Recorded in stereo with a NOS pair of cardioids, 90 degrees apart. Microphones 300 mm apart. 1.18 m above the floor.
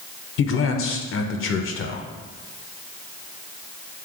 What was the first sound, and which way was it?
A man speaking, 50° left.